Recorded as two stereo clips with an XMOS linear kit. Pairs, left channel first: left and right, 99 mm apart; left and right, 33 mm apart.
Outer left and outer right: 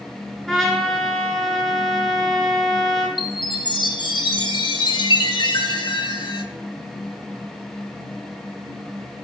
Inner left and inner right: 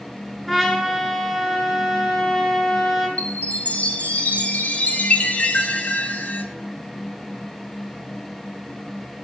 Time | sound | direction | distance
0.5 | a trumpet | 5° left (ahead or behind) | 1.0 m
3.2 | a chime | 55° left (ahead or behind) | 0.6 m